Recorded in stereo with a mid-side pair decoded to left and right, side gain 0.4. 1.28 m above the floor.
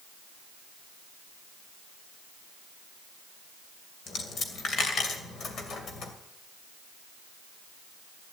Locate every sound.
4.1 s a dropped coin: 65° left, 2.5 m